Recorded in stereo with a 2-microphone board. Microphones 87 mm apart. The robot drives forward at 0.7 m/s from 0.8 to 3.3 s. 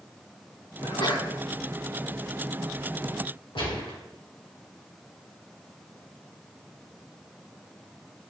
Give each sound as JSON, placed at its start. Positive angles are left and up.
{"t": 0.8, "sound": "a sneeze", "side_deg": 65, "distance_m": 2.5}
{"t": 3.5, "sound": "a gunshot", "side_deg": 75, "distance_m": 2.5}